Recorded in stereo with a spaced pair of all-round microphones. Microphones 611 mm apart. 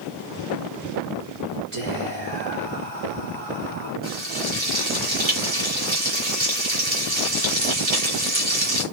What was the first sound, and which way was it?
Whispering, 70° right (ahead or behind).